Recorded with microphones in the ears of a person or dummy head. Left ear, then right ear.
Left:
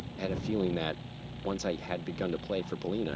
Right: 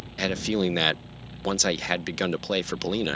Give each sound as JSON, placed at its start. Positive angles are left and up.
{"t": 0.2, "sound": "a man speaking", "side_deg": -55}